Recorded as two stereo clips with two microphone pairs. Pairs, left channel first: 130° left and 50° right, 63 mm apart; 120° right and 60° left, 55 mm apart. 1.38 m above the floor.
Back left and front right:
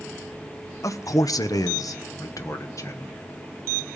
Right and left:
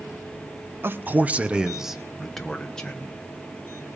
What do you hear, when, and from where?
0.8 s a man speaking: 105° left, 0.9 m; by 3.2 s 170° left, 1.5 m